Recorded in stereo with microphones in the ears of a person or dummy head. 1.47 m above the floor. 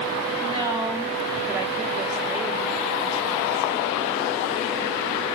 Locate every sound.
0.4 s a woman speaking: 30° right (ahead or behind), 1.7 m; by 4.2 s centre (ahead or behind), 3 m